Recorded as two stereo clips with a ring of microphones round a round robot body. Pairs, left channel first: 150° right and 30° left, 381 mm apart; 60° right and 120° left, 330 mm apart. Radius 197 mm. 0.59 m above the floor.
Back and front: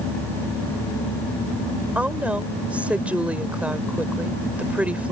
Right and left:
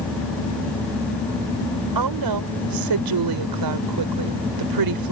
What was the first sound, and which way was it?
A woman speaking, 115° left.